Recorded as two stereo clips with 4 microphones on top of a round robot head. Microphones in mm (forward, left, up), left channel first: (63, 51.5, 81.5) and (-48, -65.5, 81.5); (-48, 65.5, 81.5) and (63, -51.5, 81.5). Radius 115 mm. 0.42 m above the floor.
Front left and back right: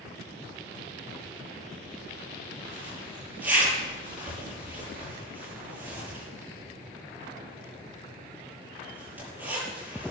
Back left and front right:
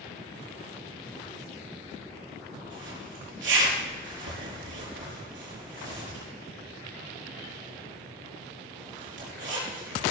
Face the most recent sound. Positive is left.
turn(degrees=-55)